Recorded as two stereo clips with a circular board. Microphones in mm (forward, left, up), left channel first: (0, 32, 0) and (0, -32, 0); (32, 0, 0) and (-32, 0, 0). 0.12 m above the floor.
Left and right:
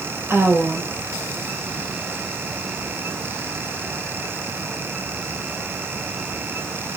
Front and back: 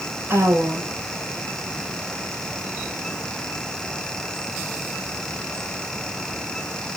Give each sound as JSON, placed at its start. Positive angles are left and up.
{"t": 0.3, "sound": "a woman speaking", "azimuth_deg": -140, "distance_m": 5.0}